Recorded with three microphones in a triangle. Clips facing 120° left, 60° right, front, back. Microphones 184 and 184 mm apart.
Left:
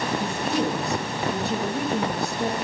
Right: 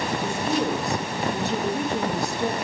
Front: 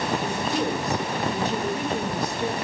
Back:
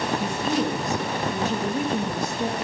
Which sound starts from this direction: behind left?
A woman speaking, at 0.2 s.